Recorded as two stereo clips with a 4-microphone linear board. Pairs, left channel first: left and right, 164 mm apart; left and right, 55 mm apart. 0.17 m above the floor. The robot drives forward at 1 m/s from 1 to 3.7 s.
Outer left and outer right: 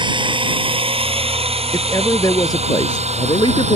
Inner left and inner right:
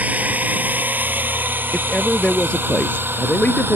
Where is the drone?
25° right (ahead or behind); by 3.8 s 40° right (ahead or behind).